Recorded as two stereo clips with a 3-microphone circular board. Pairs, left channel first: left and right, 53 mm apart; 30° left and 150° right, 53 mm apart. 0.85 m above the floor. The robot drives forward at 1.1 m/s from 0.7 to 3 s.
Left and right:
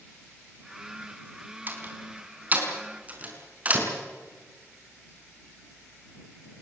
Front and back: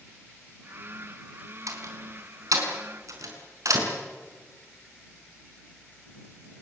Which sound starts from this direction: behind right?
A door slam, at 1.7 s.